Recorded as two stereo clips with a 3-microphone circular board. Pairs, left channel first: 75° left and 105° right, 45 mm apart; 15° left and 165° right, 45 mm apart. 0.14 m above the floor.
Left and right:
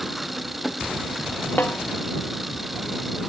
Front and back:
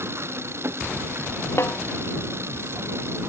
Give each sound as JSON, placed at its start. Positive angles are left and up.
{"t": 0.0, "sound": "an engine running", "azimuth_deg": 170}
{"t": 1.6, "sound": "a snare drum", "azimuth_deg": 30}